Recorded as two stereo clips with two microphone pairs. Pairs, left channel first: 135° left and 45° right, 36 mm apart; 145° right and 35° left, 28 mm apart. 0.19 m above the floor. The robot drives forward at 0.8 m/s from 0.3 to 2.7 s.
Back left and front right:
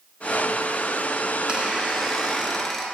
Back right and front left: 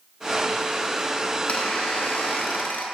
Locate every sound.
1.5 s a squeak: 105° right, 1.1 m; by 2.9 s 145° right, 1.6 m